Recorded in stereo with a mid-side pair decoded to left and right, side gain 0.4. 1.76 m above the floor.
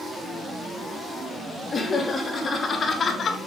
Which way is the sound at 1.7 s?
40° left.